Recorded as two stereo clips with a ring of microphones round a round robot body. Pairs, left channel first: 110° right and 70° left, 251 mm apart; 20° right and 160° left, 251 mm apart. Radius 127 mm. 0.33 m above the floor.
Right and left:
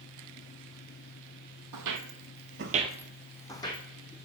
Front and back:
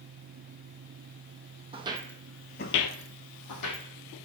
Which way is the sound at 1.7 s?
90° left.